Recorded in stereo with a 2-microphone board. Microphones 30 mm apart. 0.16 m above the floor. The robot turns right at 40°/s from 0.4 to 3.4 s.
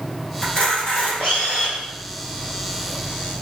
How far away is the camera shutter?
About 1.8 m.